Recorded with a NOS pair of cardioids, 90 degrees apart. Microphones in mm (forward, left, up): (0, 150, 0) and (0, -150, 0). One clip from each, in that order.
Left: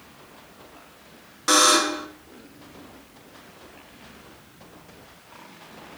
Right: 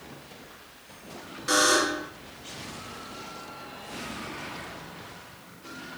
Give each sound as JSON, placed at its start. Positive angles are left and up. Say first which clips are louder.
{"t": 1.5, "sound": "a buzzer", "louder": "left 4 dB", "azimuth_deg": 60, "distance_m": 2.0}